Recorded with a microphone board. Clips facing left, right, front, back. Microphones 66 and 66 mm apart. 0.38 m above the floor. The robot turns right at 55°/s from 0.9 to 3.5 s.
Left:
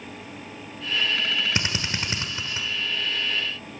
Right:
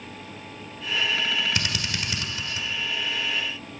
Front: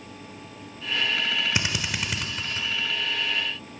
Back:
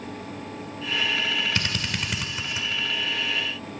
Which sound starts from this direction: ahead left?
A drill, at 1.6 s.